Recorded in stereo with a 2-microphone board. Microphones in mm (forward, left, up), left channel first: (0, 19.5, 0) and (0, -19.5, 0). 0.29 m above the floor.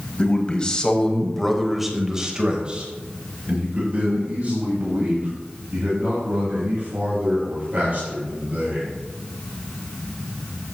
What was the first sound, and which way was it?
A man speaking, 30° left (ahead or behind).